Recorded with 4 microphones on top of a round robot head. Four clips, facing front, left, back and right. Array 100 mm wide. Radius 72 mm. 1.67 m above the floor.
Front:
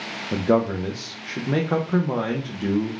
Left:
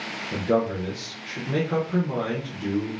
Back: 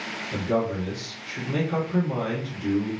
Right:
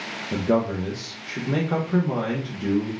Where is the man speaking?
25° right, 0.5 m.